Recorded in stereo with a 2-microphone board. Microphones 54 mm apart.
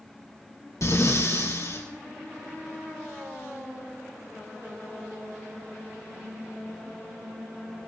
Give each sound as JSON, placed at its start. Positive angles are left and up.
{"t": 0.8, "sound": "breathing", "side_deg": 65, "distance_m": 3.5}